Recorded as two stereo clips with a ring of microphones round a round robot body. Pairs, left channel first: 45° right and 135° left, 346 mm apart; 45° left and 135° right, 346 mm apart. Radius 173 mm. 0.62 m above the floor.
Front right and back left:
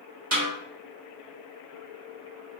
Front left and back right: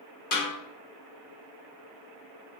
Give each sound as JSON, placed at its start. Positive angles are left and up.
{"t": 0.3, "sound": "a snare drum", "azimuth_deg": 90, "distance_m": 1.3}